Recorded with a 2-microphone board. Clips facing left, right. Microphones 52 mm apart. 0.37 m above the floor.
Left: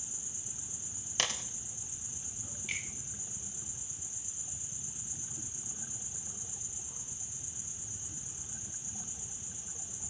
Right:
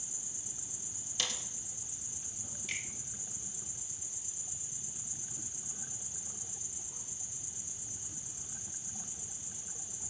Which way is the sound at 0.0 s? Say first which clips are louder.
Left 1 dB; 35° left (ahead or behind).